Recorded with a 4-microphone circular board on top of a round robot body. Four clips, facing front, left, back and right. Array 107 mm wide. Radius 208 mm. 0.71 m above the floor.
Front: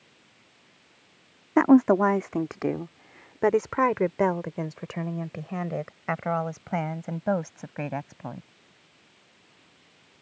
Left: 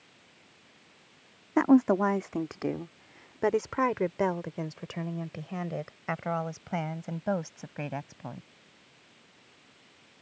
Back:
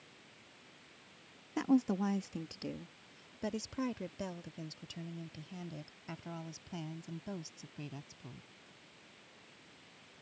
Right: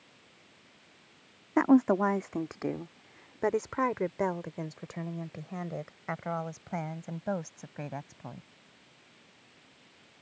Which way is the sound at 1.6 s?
Straight ahead.